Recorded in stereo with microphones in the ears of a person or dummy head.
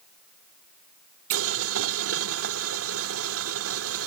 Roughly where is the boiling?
Right.